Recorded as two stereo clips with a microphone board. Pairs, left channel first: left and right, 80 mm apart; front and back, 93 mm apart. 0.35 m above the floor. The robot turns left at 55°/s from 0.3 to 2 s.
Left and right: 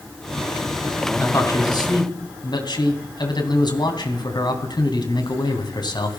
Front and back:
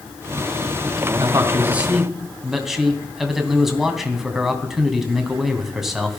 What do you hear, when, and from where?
1.2 s a man speaking: 140° left, 3 m; by 6.2 s 95° left, 3 m